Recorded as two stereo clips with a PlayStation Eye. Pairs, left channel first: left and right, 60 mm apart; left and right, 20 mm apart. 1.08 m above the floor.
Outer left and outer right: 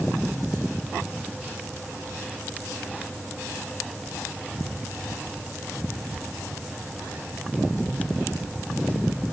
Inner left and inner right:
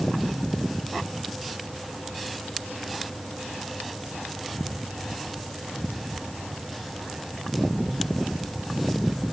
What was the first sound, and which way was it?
Only background noise.